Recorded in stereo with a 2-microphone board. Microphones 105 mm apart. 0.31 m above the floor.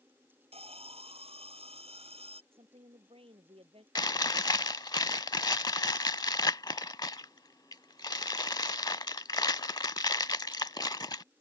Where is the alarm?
80° right.